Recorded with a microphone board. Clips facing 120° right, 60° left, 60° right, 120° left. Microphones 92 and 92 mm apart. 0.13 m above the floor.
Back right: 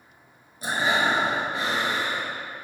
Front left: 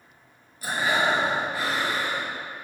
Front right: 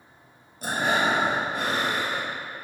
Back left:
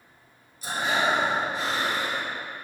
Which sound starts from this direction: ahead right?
Breathing, at 0.6 s.